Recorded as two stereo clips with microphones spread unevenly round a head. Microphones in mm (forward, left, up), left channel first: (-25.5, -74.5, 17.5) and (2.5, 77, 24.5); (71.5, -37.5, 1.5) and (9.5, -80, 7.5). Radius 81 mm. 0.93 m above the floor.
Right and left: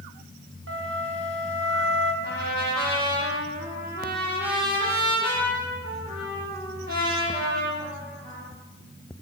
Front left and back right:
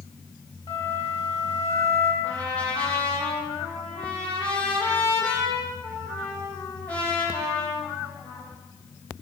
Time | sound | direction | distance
0.7 | a flute | 80° left | 5 m
2.2 | a trumpet | 110° left | 9.5 m